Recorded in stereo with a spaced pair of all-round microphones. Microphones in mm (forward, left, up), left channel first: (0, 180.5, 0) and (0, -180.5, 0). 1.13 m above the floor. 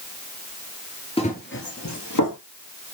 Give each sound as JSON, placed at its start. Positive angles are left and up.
{"t": 1.2, "sound": "running footsteps", "side_deg": 15, "distance_m": 1.3}